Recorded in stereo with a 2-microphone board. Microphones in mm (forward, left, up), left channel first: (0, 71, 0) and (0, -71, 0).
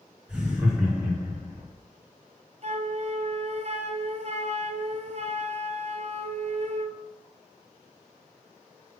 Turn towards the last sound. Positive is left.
turn(degrees=-55)  # may be behind; listen again after turning